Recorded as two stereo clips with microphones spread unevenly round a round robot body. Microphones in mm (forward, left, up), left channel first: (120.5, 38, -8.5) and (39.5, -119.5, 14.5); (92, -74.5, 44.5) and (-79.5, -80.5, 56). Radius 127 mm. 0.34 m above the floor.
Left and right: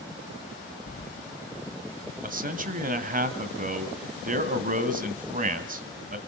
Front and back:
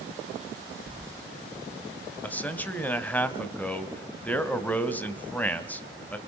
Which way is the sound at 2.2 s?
75° right.